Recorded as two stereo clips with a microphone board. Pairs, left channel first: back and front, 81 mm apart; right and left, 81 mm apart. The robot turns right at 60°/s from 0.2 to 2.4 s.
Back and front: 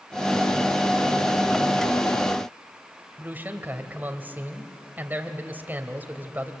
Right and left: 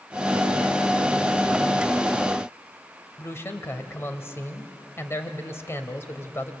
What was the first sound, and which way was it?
A man speaking, 55° right.